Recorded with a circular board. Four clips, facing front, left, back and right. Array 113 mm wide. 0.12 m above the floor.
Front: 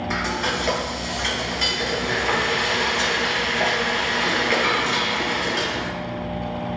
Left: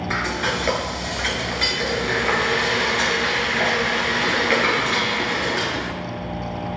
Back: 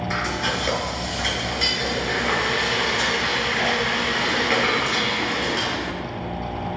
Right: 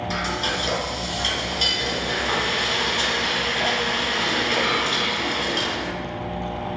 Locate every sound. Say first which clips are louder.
0.1 s frying: left 4 dB, front 1 dB; 90° left, 1.6 m